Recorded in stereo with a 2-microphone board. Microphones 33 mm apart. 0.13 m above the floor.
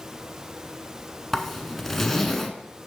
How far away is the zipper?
About 0.8 m.